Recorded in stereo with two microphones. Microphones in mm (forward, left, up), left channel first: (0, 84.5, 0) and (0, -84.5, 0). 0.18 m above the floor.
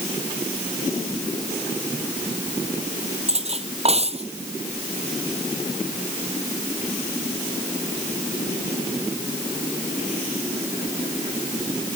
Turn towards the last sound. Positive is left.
turn(degrees=-40)  # may be behind; listen again after turning